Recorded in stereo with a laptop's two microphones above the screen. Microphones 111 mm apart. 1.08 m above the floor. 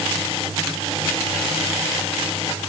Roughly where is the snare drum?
No snare drum in this recording.